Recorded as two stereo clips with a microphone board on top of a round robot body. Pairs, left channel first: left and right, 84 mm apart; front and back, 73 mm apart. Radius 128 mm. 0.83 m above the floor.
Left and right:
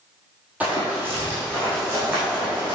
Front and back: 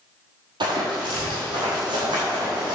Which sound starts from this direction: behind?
Running footsteps, at 0.6 s.